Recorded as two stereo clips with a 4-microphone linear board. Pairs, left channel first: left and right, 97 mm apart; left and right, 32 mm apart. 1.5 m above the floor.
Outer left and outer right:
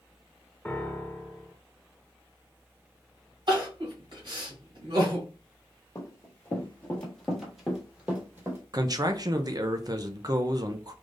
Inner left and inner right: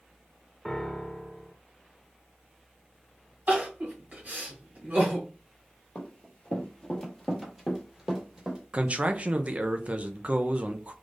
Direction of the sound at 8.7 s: 40° right (ahead or behind).